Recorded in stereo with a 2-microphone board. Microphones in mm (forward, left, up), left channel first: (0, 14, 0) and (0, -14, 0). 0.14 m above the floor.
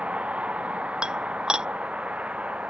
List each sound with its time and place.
0.0 s a vehicle: 50° right (ahead or behind)
1.0 s dishes clattering: 25° right (ahead or behind)